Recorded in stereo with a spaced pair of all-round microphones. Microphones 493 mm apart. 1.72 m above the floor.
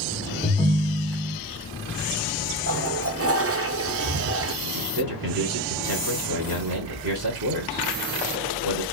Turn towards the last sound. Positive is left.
turn(degrees=-45)  # may be behind; listen again after turning